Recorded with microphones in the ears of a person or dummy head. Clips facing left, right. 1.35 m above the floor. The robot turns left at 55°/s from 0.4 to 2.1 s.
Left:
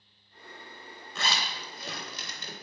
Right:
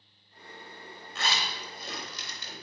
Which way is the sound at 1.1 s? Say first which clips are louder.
Even; 80° left.